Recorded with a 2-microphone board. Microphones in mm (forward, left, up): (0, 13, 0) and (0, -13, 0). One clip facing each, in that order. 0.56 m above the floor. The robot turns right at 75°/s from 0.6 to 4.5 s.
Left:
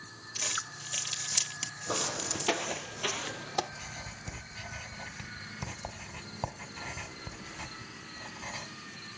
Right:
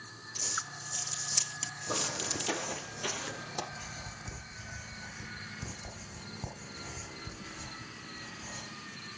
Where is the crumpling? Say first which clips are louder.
Left 2 dB; 70° left (ahead or behind), 1.2 m; by 2.9 s 60° right (ahead or behind), 1.2 m.